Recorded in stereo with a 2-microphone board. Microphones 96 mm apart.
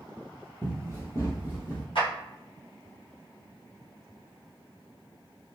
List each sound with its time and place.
0.6 s running footsteps: 25° left (ahead or behind), 1.1 m; by 1.9 s 40° left (ahead or behind), 1.6 m
1.9 s a clap: 65° left (ahead or behind), 1.3 m